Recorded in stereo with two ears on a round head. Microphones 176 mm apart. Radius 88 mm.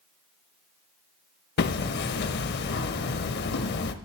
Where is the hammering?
55° left (ahead or behind), 0.5 m.